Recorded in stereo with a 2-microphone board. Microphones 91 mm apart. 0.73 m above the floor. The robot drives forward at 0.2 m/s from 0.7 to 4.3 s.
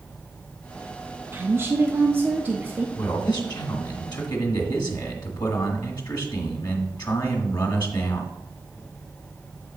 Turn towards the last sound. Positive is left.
turn(degrees=55)  # may be behind; listen again after turning